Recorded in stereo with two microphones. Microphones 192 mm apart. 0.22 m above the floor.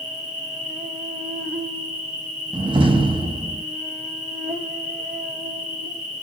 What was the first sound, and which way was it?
An insect, 40° right (ahead or behind).